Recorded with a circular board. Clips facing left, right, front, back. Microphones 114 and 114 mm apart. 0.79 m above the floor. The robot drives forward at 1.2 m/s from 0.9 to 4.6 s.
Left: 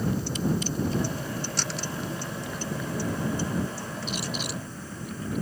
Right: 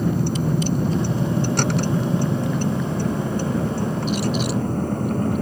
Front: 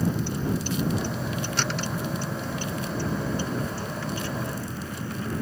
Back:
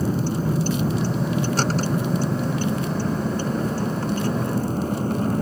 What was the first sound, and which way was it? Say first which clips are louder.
A vehicle: right 6 dB, back 4 dB; 125° right.